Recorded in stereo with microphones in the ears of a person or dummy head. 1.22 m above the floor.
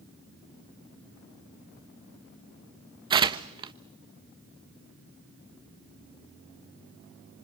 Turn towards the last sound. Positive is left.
turn(degrees=-30)  # may be behind; listen again after turning